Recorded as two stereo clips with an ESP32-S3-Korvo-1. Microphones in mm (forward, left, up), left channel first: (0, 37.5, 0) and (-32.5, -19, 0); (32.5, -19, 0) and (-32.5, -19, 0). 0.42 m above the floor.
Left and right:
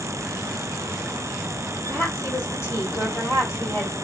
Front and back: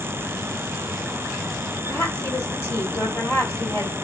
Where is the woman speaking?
45° left, 1.6 m.